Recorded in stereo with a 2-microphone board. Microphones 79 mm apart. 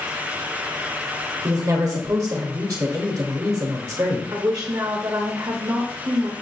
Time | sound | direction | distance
1.4 | a woman speaking | 50° right (ahead or behind) | 1.3 m
4.3 | a woman speaking | 45° right (ahead or behind) | 0.7 m